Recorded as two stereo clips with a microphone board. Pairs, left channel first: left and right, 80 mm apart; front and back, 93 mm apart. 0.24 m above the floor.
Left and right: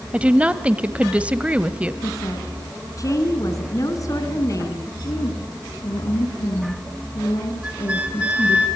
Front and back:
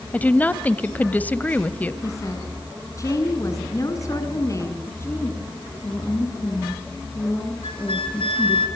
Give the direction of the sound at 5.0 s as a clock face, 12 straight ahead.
10 o'clock.